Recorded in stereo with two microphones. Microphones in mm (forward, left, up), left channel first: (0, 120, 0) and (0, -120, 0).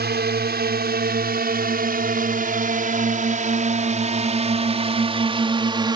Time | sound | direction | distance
0.0 | a drone | 45° right (ahead or behind) | ?